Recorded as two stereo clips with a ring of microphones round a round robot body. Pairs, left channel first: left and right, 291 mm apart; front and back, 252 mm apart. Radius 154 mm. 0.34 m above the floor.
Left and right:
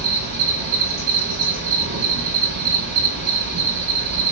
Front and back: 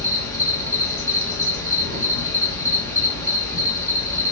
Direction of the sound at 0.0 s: 70° right.